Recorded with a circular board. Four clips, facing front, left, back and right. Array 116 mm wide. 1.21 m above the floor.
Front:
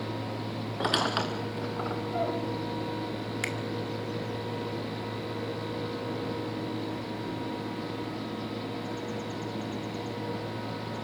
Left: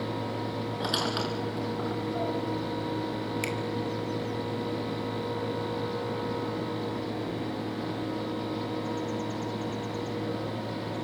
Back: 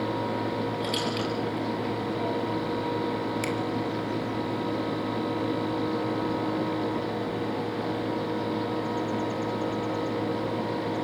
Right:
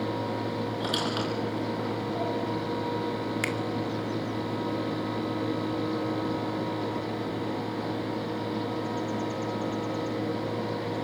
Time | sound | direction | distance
0.8 | a squeak | 5° left | 5 m
3.4 | a finger snap | 60° right | 2.0 m